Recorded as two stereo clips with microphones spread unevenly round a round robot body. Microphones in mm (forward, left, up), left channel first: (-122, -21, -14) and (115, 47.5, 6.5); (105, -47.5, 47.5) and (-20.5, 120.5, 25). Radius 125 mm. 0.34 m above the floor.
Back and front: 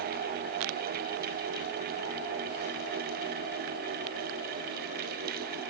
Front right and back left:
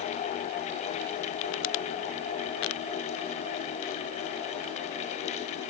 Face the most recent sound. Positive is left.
No sound to turn to.